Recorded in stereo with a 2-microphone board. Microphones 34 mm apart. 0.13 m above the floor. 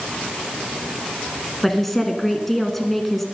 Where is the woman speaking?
5° left (ahead or behind), 1.1 m.